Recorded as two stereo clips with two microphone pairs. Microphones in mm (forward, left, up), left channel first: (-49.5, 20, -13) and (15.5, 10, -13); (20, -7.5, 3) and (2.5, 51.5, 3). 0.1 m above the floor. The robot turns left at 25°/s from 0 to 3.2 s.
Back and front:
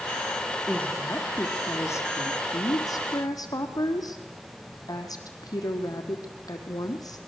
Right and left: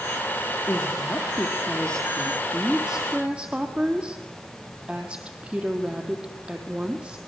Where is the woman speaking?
120° right, 3.5 m; by 7.2 s straight behind, 3.5 m.